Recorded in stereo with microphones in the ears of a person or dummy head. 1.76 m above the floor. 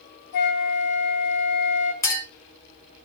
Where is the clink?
10° left (ahead or behind), 0.7 m.